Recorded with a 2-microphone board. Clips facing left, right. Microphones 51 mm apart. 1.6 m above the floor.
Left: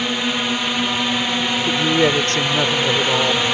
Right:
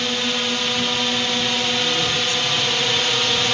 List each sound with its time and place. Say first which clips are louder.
0.0 s a drone: left 2 dB; 15° left (ahead or behind)
1.7 s a woman speaking: left 5 dB; 75° left (ahead or behind)